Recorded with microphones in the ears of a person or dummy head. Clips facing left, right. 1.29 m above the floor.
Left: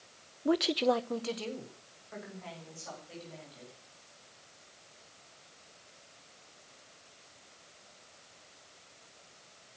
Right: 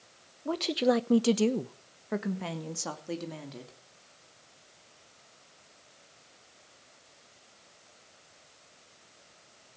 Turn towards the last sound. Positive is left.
turn(degrees=-80)